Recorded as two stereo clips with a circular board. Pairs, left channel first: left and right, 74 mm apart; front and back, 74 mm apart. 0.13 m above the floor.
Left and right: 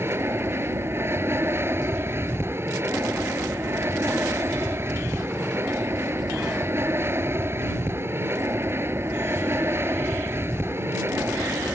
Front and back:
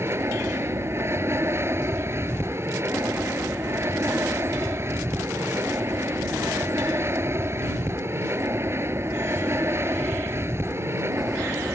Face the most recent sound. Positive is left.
turn(degrees=-135)